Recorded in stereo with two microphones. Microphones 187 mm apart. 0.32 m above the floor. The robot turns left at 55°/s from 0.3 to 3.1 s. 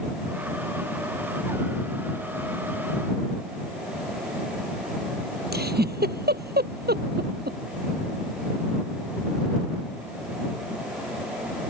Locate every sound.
5.5 s a giggle: 55° right (ahead or behind)